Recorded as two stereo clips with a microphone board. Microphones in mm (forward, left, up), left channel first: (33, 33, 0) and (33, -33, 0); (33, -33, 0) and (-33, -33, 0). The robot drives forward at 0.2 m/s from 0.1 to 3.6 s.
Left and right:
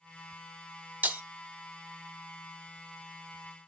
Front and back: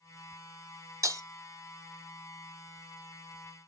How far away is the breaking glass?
About 1.0 m.